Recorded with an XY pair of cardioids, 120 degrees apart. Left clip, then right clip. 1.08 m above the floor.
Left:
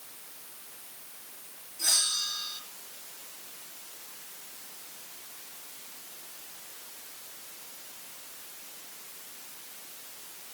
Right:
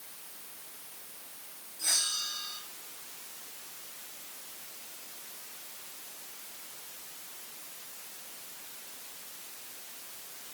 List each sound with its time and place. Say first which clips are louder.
1.8 s a bell: left 3 dB; 25° left, 9.5 m